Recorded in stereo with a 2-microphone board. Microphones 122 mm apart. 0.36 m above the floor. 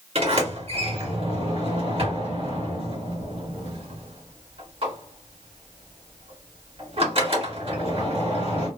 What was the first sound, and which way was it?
A sliding door, 55° right (ahead or behind).